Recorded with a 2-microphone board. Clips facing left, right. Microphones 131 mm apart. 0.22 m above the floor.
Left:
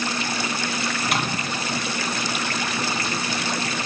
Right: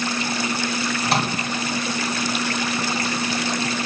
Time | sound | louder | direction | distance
1.0 | a microwave | right 4 dB | 35° right (ahead or behind) | 2.0 m